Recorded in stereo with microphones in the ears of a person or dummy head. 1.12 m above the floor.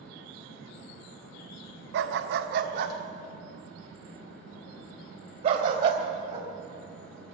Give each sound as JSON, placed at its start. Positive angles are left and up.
{"t": 1.9, "sound": "a dog barking", "side_deg": -60, "distance_m": 0.9}